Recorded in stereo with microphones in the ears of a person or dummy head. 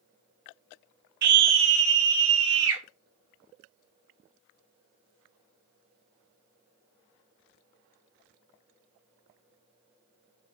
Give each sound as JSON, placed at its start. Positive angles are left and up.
{"t": 1.2, "sound": "a scream", "side_deg": -55, "distance_m": 1.2}